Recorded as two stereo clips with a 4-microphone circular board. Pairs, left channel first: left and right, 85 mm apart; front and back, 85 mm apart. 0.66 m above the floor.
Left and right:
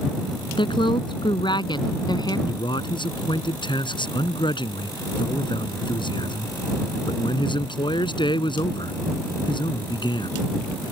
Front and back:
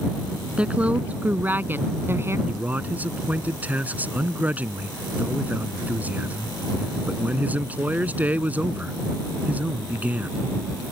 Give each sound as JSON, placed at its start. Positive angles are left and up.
{"t": 0.6, "sound": "a woman speaking", "azimuth_deg": 105}
{"t": 2.5, "sound": "a man speaking", "azimuth_deg": 110}